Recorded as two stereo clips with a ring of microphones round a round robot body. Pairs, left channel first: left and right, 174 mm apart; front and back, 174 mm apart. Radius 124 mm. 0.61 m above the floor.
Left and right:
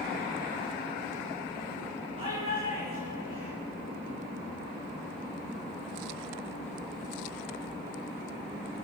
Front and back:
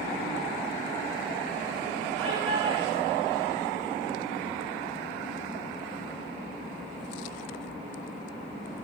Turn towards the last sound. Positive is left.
turn(degrees=-160)